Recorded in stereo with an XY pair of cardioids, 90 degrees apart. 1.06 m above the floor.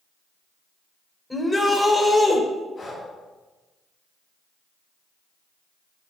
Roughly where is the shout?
Ahead.